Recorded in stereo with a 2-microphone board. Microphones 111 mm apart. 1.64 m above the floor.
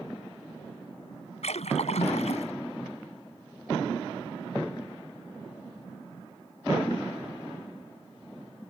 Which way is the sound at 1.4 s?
75° left (ahead or behind).